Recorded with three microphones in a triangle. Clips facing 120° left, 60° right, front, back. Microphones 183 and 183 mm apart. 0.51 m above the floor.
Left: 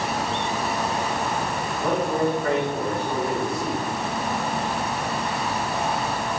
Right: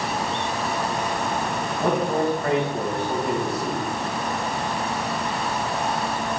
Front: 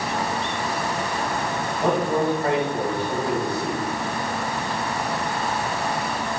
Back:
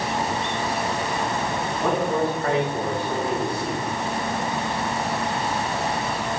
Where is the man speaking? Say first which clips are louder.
Right 1 dB, front 1 dB; 70° right, 4 m.